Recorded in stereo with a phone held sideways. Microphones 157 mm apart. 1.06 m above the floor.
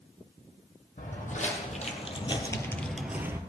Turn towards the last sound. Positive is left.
turn(degrees=-20)  # may be behind; listen again after turning